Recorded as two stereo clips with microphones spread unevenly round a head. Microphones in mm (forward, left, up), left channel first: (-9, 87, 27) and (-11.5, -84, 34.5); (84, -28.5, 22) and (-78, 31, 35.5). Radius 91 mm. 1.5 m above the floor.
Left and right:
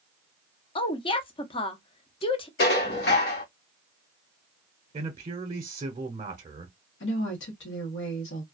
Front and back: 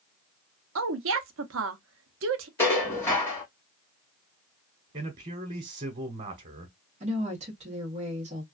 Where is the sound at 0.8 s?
150° left, 0.7 m.